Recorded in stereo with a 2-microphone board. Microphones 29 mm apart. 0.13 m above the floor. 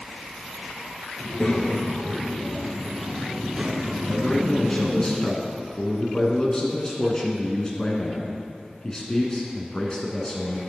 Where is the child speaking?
35° left (ahead or behind), 1.9 m; by 5.0 s 45° right (ahead or behind), 1.9 m.